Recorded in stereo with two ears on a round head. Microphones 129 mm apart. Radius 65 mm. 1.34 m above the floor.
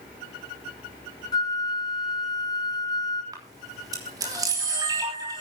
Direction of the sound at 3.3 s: 25° right (ahead or behind).